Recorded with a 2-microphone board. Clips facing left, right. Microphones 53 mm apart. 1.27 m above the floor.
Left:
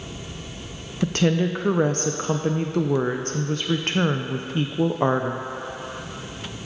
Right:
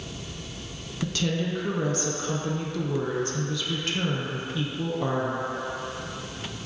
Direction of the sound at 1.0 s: 45° left (ahead or behind).